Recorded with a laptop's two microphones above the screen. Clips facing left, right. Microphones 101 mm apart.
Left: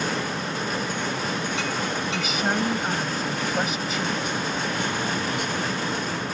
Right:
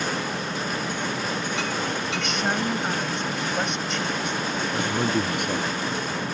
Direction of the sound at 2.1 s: 5° left (ahead or behind).